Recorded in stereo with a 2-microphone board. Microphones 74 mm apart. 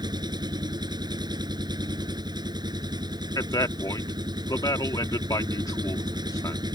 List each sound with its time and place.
0.0 s an engine running: 65° right (ahead or behind)
3.4 s a man speaking: 60° left (ahead or behind)